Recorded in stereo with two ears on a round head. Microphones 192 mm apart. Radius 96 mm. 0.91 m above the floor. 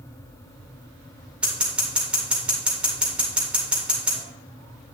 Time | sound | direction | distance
1.4 | scissors | 5° right (ahead or behind) | 2.5 m